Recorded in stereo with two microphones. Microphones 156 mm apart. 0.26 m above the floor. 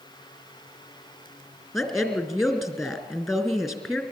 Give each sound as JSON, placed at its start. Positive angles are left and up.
{"t": 1.7, "sound": "a woman speaking", "side_deg": 0, "distance_m": 3.5}